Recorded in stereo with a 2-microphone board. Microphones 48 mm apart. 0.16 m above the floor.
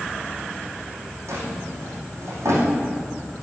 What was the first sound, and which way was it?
A drawer, 80° right.